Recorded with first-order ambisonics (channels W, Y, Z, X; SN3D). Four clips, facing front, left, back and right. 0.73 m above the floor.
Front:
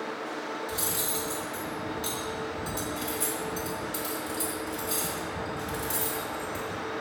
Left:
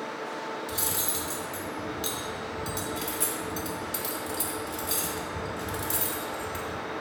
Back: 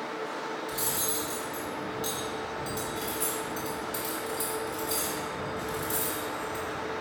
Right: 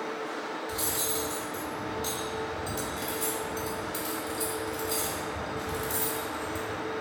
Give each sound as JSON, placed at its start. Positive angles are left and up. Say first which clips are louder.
{"t": 0.7, "sound": "cutlery clinking", "louder": "even, even", "azimuth_deg": 90, "distance_m": 1.0}